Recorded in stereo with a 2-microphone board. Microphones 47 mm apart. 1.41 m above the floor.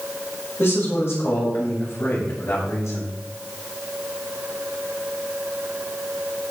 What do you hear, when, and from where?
0.6 s a man speaking: 65° left (ahead or behind), 5.5 m; by 3.1 s 80° left, 6.5 m